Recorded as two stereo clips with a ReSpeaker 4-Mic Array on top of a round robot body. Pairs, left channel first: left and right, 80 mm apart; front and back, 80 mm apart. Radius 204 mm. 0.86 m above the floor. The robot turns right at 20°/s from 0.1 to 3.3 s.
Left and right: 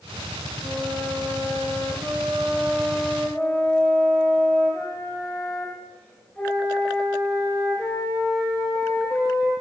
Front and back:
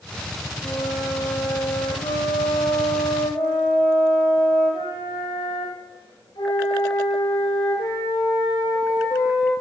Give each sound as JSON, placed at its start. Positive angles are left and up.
{"t": 0.6, "sound": "a flute", "azimuth_deg": -40, "distance_m": 0.6}